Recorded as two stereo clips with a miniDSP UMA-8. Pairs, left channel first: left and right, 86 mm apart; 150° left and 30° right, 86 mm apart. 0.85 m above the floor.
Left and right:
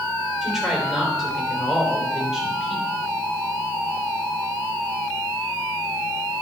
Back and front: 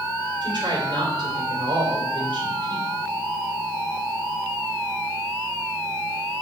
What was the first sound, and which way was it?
A woman speaking, 5° right.